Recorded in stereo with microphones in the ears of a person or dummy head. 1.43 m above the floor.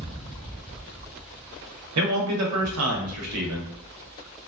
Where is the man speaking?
90° right, 0.9 m.